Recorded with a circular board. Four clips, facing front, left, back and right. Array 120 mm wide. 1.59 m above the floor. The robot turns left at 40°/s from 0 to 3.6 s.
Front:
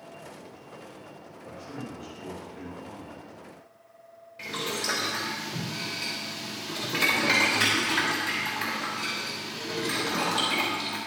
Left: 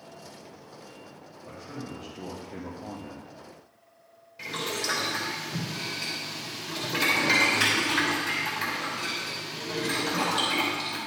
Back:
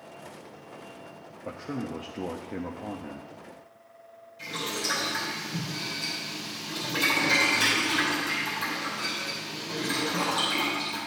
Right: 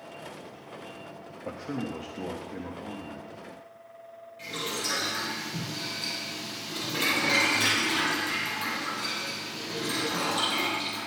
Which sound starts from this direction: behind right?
A man speaking, at 1.4 s.